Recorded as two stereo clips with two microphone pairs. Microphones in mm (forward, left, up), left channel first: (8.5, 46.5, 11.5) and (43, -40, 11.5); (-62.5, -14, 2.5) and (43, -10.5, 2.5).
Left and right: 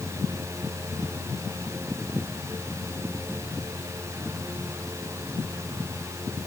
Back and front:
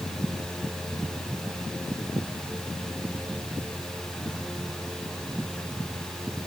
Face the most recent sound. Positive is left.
No sound to turn to.